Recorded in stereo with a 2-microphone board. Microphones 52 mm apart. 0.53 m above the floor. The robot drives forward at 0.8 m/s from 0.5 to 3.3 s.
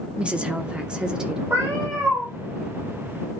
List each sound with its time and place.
0.2 s a woman speaking: 20° right (ahead or behind), 0.8 m; by 1.4 s 15° right (ahead or behind), 1.2 m
1.5 s a cat meowing: 50° right (ahead or behind), 5.5 m; by 2.3 s 45° right (ahead or behind), 6 m